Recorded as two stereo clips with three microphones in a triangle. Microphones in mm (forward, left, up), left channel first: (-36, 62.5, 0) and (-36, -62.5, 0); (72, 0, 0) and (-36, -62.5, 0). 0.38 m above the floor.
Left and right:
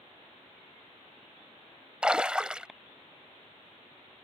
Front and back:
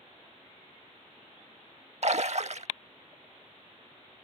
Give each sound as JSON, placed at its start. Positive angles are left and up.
{"t": 2.0, "sound": "a splash", "azimuth_deg": -175}